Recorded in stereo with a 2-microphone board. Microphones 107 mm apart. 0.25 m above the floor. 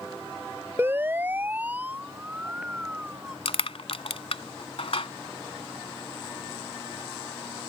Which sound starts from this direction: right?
A siren, at 0.8 s.